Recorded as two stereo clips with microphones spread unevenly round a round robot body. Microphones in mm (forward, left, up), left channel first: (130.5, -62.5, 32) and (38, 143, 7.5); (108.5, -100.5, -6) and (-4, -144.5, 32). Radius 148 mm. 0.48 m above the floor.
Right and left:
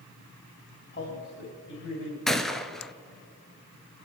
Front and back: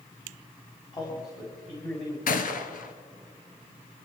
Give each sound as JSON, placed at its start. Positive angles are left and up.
{"t": 0.9, "sound": "a man speaking", "azimuth_deg": -25, "distance_m": 4.0}
{"t": 2.3, "sound": "a gunshot", "azimuth_deg": 20, "distance_m": 1.3}